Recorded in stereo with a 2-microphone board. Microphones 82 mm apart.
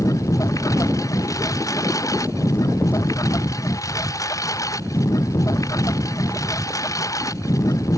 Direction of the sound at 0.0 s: 45° left (ahead or behind).